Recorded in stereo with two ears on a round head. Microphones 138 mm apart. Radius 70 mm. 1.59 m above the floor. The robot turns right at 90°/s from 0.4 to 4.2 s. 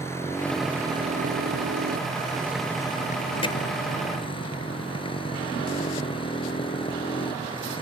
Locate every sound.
0.0 s a motorcycle: 160° left; by 7.8 s 145° left
3.4 s hammering: 40° left (ahead or behind); by 3.6 s 25° left (ahead or behind)